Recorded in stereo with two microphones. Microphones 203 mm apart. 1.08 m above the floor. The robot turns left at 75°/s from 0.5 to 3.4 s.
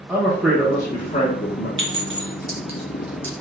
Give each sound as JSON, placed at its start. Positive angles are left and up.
{"t": 0.1, "sound": "a man speaking", "azimuth_deg": -175, "distance_m": 0.6}
{"t": 1.8, "sound": "a clink", "side_deg": -70, "distance_m": 1.0}